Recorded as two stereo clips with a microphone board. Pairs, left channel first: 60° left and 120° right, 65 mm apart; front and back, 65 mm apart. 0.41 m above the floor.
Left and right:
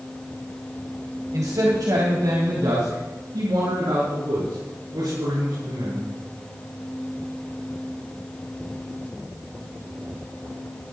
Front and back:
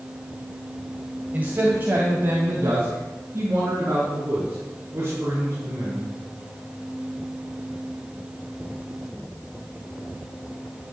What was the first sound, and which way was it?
A man speaking, 120° right.